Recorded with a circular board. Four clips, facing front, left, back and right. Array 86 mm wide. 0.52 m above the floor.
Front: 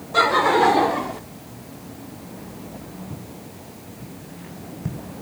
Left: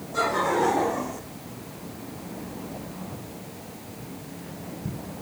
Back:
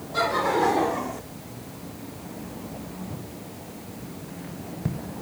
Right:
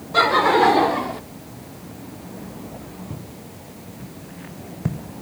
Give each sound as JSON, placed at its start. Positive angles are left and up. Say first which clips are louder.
{"t": 0.1, "sound": "laughter", "louder": "right 8 dB, front 6 dB", "azimuth_deg": -50, "distance_m": 1.6}
{"t": 3.1, "sound": "footsteps", "louder": "right 2 dB, even", "azimuth_deg": -80, "distance_m": 3.5}